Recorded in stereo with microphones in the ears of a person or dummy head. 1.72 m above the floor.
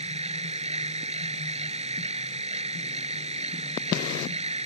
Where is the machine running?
30° right (ahead or behind).